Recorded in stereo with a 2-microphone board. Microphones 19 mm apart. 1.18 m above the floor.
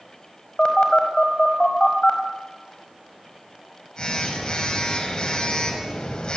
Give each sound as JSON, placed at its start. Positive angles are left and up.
{"t": 0.6, "sound": "a phone buzzing", "side_deg": 55, "distance_m": 5.0}